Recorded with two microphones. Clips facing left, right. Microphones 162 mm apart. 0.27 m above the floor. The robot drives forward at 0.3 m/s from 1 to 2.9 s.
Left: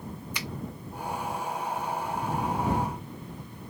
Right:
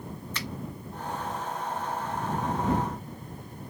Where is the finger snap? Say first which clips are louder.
Right 1 dB; 15° left (ahead or behind), 0.7 m.